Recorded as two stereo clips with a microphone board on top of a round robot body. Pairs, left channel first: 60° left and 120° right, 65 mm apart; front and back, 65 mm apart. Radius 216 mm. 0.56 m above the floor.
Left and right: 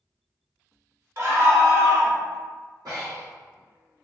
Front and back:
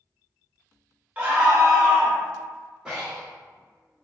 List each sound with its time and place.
1.2 s a scream: 120° right, 1.5 m; by 2.2 s 90° right, 1.6 m
2.9 s breathing: 100° right, 1.5 m